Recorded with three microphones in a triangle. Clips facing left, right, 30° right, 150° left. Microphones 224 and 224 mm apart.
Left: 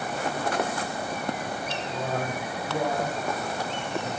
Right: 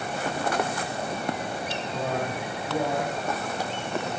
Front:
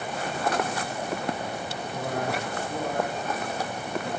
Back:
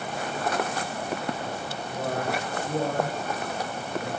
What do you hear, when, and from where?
1.9 s a man speaking: 165° right, 5.5 m; by 4.1 s 160° right, 4.5 m